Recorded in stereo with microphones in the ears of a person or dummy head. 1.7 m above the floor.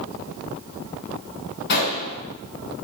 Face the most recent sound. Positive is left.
turn(degrees=60)  # may be behind; listen again after turning